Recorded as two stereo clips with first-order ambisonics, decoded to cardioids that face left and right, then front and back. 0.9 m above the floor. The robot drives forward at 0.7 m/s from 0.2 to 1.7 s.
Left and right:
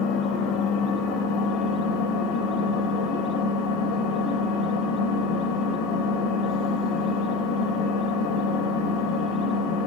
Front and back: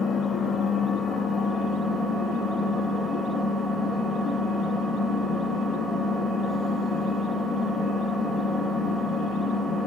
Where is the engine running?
80° left, 3.5 m; by 9.9 s 95° left, 3.5 m.